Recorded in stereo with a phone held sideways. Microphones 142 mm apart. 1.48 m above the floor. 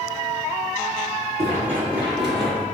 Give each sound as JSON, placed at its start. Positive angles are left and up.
{"t": 1.4, "sound": "running footsteps", "side_deg": -15, "distance_m": 2.0}